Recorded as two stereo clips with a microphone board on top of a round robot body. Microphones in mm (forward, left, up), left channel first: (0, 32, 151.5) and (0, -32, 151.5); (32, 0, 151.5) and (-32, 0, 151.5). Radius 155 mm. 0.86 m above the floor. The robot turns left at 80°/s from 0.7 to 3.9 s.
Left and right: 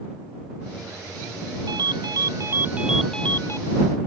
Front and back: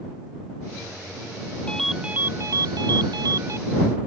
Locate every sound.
1.7 s a ringtone: 75° right; by 3.6 s 135° left